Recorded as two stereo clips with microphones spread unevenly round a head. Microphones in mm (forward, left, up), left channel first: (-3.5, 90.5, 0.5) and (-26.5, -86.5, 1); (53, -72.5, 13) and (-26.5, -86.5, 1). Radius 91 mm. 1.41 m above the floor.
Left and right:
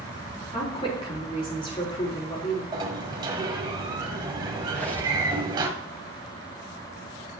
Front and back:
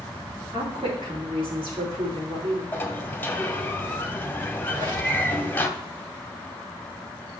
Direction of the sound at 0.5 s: 145° left.